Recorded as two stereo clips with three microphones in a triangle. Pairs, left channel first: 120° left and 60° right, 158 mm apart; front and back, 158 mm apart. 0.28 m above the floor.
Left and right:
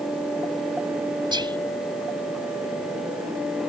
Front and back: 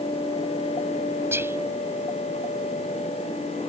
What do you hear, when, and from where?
1.3 s whispering: 110° right